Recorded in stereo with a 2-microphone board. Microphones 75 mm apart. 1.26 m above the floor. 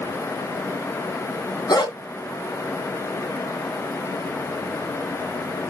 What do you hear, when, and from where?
1.7 s a dog barking: 65° left (ahead or behind), 2.5 m